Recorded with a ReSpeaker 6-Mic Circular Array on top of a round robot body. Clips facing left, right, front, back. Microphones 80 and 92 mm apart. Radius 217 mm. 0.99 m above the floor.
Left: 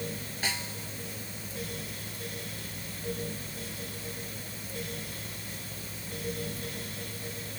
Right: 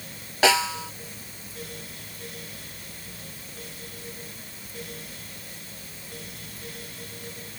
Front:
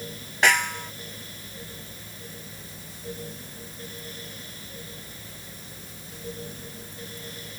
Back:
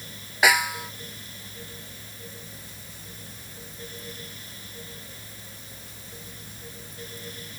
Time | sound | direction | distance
0.4 | a snare drum | 95° right | ?